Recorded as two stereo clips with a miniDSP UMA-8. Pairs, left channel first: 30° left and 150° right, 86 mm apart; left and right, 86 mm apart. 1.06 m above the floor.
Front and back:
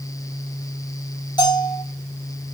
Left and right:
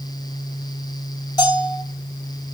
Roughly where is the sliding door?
No sliding door in this recording.